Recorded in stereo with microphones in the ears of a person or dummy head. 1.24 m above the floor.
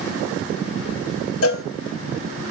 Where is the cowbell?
70° left (ahead or behind), 1.1 m.